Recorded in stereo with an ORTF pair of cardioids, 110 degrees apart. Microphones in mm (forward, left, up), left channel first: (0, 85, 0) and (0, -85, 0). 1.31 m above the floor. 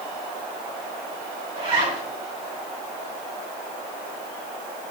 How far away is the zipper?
About 5.5 m.